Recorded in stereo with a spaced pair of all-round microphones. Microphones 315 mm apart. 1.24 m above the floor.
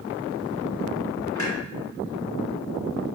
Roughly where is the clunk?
Left.